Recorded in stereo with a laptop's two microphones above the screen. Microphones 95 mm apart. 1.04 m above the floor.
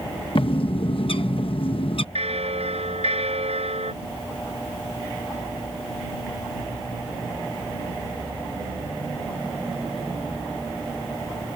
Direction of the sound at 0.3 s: 60° left (ahead or behind).